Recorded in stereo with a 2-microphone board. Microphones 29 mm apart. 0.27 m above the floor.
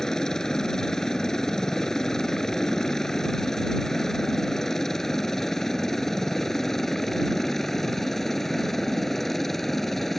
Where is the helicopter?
15° left (ahead or behind); by 10.2 s 5° left (ahead or behind).